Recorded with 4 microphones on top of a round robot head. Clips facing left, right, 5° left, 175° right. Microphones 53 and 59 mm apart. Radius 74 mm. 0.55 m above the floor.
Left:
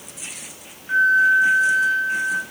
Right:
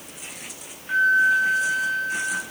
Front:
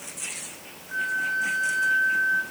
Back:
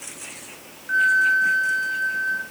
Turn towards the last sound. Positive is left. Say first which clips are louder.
# left 3 dB, back 9 dB
turn(degrees=165)